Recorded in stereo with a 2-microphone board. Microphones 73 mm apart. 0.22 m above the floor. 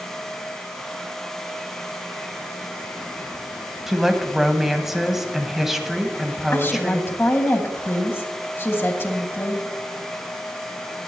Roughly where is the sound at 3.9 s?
Centre.